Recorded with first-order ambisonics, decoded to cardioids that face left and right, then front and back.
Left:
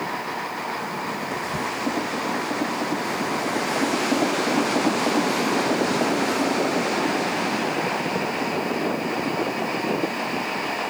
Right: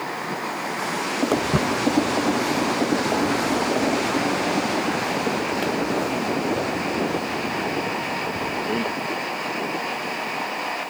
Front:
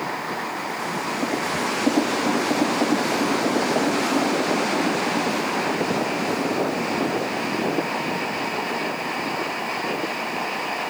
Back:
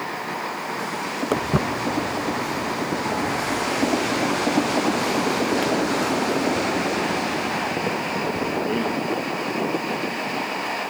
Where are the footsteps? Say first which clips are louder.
Right 6 dB, back 3 dB; 140° right; by 8.9 s 135° right.